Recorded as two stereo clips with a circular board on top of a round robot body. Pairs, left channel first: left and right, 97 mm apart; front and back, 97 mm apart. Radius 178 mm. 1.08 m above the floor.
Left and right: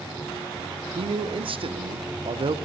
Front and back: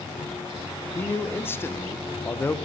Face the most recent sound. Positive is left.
turn(degrees=-65)